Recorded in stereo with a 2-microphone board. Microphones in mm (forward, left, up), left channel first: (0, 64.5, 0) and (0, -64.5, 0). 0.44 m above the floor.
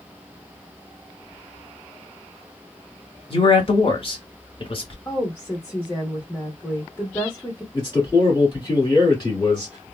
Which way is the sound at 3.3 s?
45° left (ahead or behind).